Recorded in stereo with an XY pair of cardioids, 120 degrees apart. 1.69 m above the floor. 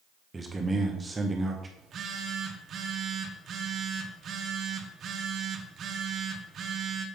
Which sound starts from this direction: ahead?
A man speaking, at 0.3 s.